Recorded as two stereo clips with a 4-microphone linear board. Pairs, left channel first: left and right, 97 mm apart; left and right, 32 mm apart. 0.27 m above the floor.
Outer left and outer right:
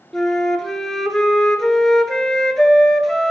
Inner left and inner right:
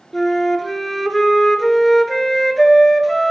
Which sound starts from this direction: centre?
A flute, at 0.1 s.